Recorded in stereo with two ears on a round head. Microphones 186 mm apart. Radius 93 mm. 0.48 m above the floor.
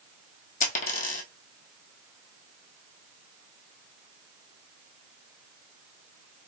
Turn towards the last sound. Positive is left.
turn(degrees=40)  # may be behind; listen again after turning